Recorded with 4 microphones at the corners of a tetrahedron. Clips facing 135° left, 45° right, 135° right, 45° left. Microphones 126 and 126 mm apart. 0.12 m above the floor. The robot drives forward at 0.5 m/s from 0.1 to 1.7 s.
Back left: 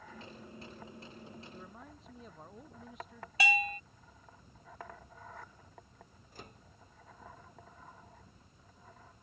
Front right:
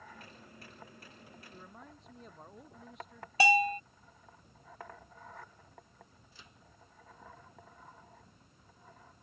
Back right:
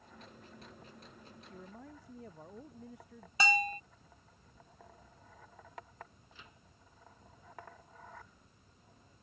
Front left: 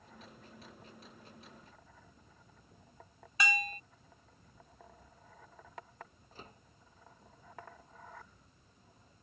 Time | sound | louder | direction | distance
1.5 | a man speaking | back left 2 dB, back right 7 dB | 135° right | ?
3.4 | a bell | front right 6 dB, back right 4 dB | 85° right | ?
6.3 | a microwave | back left 10 dB, front left 8 dB | 95° left | ?